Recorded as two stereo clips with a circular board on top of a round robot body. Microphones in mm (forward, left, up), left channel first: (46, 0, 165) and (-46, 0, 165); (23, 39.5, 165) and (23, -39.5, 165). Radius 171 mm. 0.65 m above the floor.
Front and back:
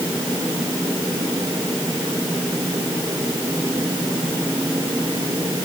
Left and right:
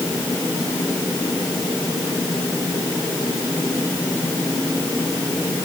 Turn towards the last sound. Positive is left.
No sound to turn to.